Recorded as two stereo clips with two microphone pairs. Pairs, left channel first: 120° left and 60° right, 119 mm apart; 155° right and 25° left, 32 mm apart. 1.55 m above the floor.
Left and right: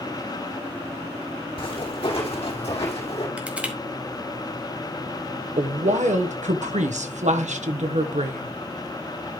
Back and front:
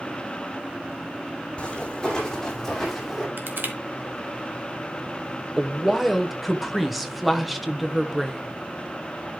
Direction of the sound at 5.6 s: 60° right.